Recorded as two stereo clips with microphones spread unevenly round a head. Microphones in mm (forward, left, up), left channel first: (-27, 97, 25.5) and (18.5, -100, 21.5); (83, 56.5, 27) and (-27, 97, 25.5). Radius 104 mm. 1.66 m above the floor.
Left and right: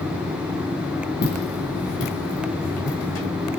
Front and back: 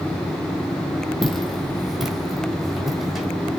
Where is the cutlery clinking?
No cutlery clinking in this recording.